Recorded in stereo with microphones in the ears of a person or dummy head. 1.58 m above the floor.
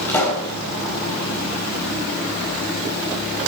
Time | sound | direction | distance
0.1 | a pop | 10° left (ahead or behind) | 3.5 m